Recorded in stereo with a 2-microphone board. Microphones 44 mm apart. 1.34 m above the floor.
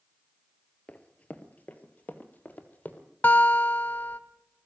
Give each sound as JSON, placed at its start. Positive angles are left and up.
{"t": 0.9, "sound": "running footsteps", "side_deg": 30, "distance_m": 1.5}
{"t": 3.2, "sound": "a guitar", "side_deg": 45, "distance_m": 1.4}